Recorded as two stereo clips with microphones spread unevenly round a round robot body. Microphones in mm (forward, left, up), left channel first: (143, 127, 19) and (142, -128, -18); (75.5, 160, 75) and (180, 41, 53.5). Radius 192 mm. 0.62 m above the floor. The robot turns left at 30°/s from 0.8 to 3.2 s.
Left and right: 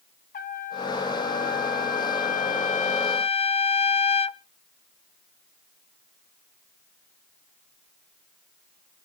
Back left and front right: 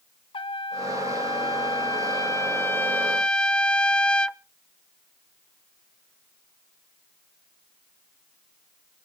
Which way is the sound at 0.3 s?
110° left.